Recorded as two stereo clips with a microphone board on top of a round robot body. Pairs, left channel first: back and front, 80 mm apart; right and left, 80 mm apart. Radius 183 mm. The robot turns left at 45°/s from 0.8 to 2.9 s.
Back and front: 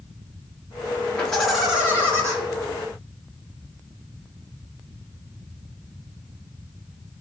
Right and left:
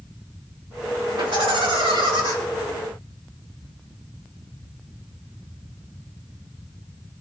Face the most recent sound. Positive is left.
turn(degrees=25)